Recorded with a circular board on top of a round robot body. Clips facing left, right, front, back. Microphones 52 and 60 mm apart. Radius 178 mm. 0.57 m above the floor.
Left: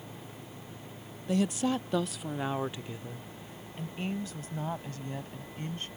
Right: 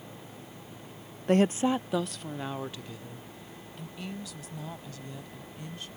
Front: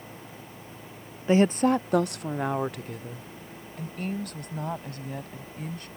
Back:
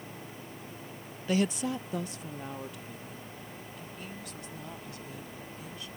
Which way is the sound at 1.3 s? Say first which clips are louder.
Right 5 dB, front 8 dB; 55° right.